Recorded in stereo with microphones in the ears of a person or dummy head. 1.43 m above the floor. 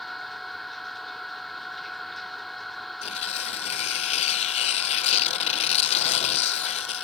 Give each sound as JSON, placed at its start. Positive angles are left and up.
{"t": 0.0, "sound": "a machine running", "side_deg": 0}
{"t": 3.0, "sound": "tearing paper", "side_deg": 35}